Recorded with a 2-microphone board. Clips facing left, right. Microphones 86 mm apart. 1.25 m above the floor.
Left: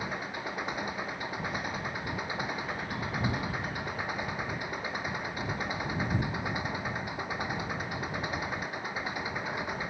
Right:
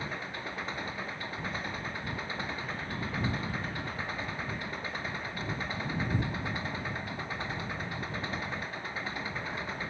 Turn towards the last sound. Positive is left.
turn(degrees=15)  # may be behind; listen again after turning